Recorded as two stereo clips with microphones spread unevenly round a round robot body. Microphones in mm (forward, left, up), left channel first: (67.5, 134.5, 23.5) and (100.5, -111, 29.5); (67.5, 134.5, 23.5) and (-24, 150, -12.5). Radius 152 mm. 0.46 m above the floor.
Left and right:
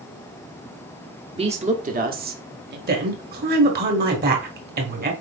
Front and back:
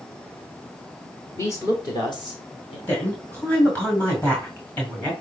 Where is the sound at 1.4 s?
90° right, 1.1 m; by 2.8 s 55° right, 1.5 m.